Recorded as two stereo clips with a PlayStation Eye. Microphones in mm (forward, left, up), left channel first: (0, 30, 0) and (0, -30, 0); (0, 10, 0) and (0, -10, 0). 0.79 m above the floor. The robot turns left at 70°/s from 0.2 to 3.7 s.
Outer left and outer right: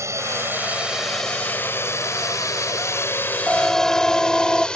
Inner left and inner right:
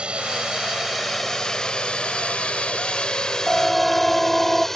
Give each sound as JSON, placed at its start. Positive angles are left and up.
{"t": 0.0, "sound": "a drone", "side_deg": -55}
{"t": 3.5, "sound": "a siren", "side_deg": -10}